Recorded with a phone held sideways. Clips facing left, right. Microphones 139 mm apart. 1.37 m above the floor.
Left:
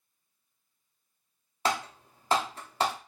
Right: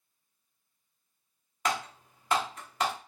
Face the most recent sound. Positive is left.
turn(degrees=30)  # may be behind; listen again after turning